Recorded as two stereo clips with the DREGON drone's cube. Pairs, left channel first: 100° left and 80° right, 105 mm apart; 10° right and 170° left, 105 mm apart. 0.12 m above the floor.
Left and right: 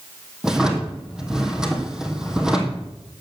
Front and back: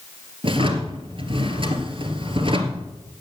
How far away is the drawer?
About 2.5 m.